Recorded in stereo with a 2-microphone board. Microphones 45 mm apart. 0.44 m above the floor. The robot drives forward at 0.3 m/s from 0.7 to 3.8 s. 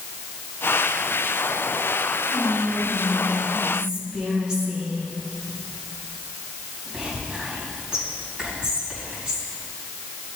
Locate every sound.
2.3 s whispering: 20° right (ahead or behind), 2.5 m; by 9.5 s 15° right (ahead or behind), 3 m